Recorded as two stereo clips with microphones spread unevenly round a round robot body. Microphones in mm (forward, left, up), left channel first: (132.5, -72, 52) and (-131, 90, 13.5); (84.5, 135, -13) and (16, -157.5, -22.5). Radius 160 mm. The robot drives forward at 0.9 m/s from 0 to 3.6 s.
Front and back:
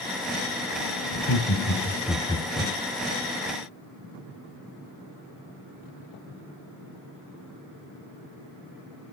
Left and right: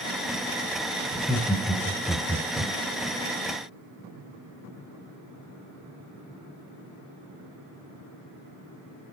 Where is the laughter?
10° right, 1.6 m; by 2.7 s 160° right, 1.3 m.